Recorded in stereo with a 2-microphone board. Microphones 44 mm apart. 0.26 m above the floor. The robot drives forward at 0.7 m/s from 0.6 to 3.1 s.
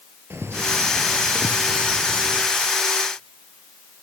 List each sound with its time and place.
0.3 s a bird: 65° right (ahead or behind), 3 m; by 2.5 s 80° right, 3 m